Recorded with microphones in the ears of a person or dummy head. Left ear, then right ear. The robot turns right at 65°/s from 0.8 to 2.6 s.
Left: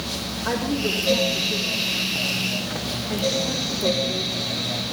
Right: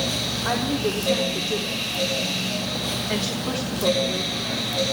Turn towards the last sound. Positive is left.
turn(degrees=-30)  # may be behind; listen again after turning